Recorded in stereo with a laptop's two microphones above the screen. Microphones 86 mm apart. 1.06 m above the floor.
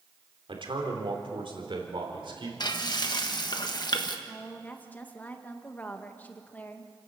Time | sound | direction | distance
0.5 | a man speaking | 80° right | 3.5 m
2.6 | frying | 55° left (ahead or behind) | 1.3 m
4.3 | a woman speaking | 20° left (ahead or behind) | 1.3 m